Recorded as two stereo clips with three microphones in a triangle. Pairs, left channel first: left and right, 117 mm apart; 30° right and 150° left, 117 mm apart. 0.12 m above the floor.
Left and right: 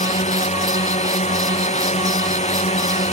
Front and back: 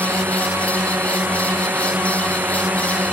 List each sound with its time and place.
0.0 s a drone: 75° left